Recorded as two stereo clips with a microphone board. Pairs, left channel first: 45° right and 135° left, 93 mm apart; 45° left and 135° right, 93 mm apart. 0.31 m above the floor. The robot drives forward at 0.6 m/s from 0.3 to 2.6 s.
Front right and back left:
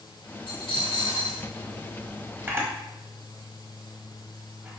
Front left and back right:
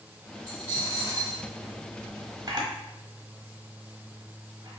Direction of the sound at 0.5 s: 5° right.